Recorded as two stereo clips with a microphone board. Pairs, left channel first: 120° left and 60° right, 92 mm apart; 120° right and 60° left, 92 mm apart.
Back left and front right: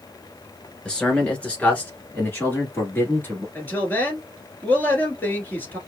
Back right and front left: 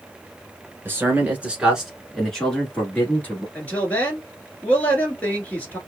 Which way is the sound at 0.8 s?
55° left.